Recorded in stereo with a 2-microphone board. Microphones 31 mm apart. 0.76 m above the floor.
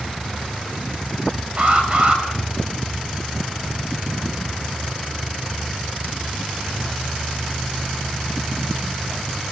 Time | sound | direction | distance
1.6 | an alarm | 45° right (ahead or behind) | 6 m